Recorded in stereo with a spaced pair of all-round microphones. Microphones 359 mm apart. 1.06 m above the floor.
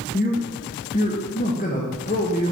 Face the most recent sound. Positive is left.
turn(degrees=25)  # may be behind; listen again after turning